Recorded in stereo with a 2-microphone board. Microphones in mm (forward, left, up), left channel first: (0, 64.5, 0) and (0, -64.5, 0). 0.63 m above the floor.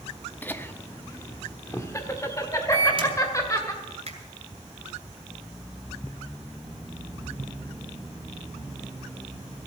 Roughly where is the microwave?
Right.